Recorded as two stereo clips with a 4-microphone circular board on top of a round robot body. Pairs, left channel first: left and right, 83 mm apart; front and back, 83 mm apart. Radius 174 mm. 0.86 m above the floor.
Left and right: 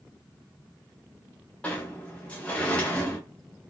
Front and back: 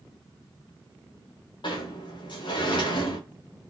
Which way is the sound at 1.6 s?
15° left.